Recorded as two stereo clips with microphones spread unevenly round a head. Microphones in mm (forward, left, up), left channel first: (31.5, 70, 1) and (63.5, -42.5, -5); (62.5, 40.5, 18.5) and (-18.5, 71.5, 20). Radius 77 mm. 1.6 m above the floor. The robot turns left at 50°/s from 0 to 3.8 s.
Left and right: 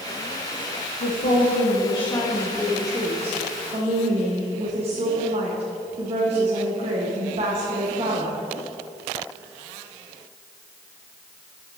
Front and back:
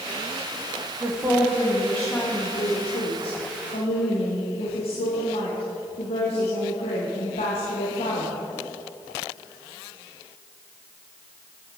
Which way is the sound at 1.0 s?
105° left.